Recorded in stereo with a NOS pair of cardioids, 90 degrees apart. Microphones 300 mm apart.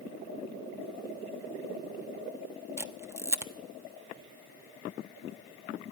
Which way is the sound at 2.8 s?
10° right.